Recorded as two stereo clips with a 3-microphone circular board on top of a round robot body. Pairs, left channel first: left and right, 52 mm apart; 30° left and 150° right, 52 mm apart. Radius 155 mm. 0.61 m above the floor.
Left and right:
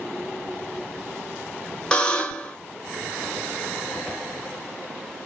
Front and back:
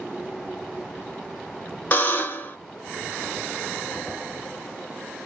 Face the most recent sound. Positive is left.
turn(degrees=35)